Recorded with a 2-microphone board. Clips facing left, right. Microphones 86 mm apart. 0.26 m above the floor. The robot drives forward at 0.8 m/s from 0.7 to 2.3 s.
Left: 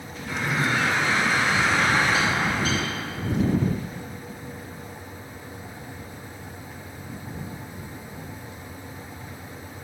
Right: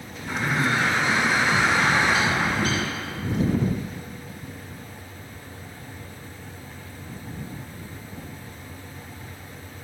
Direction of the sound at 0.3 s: 40° right (ahead or behind).